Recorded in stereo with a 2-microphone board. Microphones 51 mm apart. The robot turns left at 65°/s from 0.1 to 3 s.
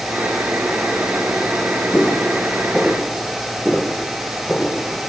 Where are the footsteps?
40° left (ahead or behind), 3.5 m; by 4.8 s 10° left (ahead or behind), 4.5 m.